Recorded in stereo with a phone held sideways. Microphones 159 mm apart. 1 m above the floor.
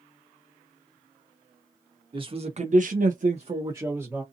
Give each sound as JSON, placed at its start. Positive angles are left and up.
{"t": 2.1, "sound": "a man speaking", "side_deg": -30, "distance_m": 1.0}